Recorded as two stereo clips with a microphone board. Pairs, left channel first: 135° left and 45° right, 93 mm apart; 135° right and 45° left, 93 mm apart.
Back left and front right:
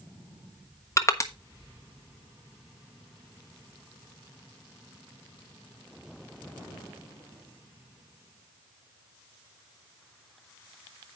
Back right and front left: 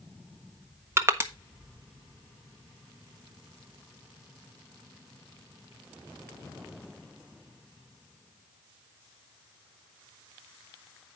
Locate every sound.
1.0 s crushing: 95° left, 1.3 m